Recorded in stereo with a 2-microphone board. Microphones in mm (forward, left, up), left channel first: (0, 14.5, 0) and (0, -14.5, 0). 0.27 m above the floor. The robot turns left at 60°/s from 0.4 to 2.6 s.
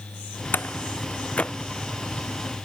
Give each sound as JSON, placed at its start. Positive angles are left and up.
{"t": 0.5, "sound": "a door slam", "side_deg": 85}